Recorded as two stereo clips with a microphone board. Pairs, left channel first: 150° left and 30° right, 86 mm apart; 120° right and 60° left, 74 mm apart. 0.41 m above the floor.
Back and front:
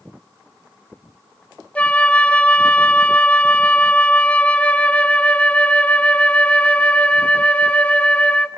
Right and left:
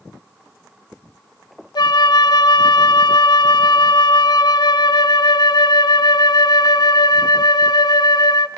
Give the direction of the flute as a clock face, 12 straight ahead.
5 o'clock.